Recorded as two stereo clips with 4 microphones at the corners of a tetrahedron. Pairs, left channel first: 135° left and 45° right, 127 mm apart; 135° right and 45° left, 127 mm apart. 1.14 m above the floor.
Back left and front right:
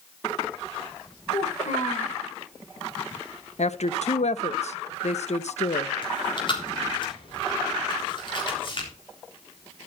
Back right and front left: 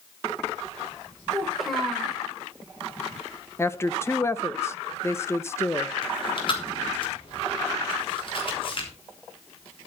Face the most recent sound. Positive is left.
turn(degrees=180)